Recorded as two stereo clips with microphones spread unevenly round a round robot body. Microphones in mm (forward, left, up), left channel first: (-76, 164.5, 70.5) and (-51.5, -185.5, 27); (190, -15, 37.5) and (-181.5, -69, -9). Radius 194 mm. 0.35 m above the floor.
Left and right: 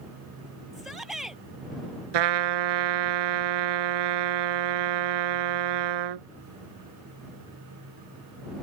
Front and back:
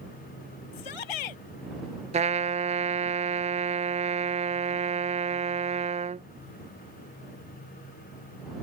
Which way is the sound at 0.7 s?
5° left.